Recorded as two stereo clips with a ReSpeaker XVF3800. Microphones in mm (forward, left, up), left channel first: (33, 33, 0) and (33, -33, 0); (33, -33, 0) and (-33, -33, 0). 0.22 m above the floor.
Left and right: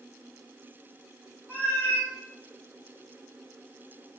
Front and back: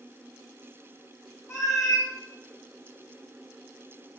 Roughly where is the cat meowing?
Ahead left.